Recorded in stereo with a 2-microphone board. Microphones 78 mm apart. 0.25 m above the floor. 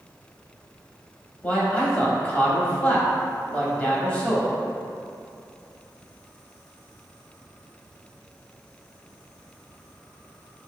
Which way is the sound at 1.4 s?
20° left (ahead or behind).